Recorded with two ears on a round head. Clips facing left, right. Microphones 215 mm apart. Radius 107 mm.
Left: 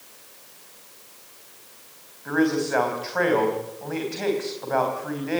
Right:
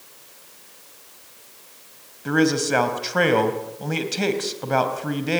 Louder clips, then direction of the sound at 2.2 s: Right 2 dB; 50° right (ahead or behind).